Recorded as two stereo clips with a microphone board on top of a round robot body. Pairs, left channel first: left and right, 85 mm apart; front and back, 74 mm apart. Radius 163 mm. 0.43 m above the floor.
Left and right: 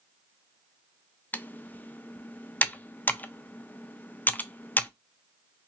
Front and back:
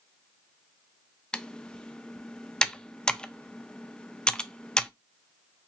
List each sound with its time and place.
1.3 s typing on a keyboard: 60° left, 0.5 m